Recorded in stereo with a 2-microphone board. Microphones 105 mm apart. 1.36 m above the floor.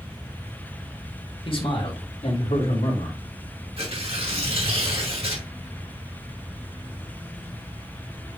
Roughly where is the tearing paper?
Right.